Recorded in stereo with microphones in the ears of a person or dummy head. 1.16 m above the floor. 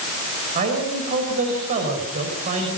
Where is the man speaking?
50° right (ahead or behind), 5.5 m.